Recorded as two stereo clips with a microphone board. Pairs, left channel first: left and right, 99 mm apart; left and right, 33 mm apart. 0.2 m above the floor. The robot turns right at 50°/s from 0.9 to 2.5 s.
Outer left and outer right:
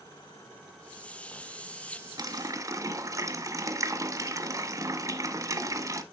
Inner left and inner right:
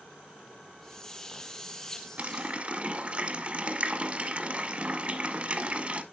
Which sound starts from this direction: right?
A running tap, at 2.2 s.